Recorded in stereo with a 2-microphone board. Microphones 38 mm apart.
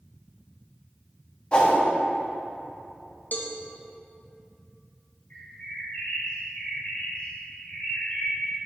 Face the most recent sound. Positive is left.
turn(degrees=40)  # may be behind; listen again after turning